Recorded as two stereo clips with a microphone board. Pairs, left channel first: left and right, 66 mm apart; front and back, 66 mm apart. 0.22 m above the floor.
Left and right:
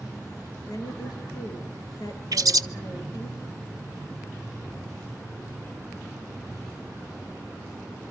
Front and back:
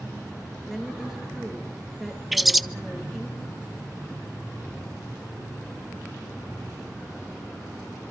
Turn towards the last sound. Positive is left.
turn(degrees=-95)